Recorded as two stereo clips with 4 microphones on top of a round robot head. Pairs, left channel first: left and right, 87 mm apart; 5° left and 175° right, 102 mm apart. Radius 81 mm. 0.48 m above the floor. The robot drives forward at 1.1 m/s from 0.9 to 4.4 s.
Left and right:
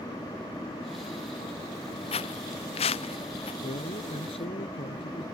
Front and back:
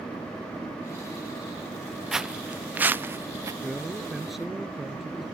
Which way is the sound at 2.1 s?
95° left.